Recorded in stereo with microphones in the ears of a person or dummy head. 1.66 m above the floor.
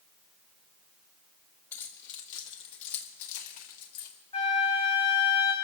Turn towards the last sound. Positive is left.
turn(degrees=35)  # may be behind; listen again after turning